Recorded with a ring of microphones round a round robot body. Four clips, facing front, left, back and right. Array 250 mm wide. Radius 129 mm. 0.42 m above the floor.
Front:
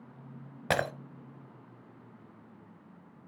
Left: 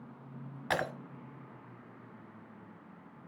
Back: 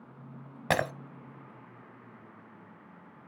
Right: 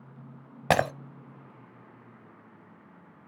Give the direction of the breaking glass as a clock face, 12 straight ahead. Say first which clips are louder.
Right 9 dB, back 1 dB; 3 o'clock.